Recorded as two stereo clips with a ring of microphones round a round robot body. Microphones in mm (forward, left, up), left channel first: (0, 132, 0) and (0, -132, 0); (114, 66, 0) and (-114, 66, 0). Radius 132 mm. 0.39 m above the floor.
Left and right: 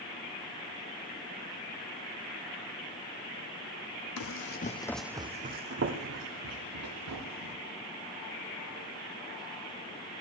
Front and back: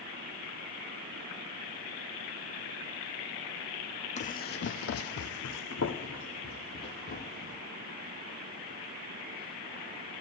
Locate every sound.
4.2 s running footsteps: 60° left, 1.0 m; by 7.5 s 65° right, 2.5 m